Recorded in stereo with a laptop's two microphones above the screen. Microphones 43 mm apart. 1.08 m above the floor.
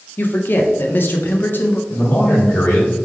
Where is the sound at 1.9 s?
70° left (ahead or behind), 1.8 m.